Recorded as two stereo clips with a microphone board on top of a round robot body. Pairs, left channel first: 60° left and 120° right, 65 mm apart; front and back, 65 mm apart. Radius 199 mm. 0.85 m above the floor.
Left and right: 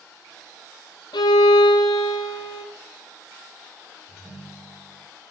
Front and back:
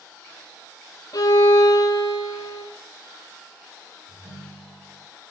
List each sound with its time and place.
1.1 s a violin: 35° left, 0.7 m
4.1 s a ringtone: 160° left, 4 m